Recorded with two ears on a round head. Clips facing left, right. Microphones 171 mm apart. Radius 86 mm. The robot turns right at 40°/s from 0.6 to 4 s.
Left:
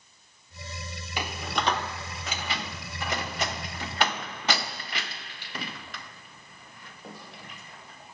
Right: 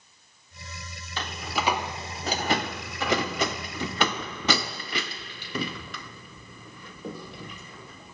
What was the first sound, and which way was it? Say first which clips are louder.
A door slam: even; 10° left (ahead or behind).